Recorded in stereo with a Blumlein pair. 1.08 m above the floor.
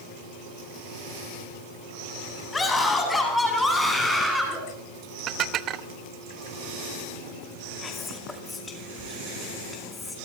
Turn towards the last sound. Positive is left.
turn(degrees=15)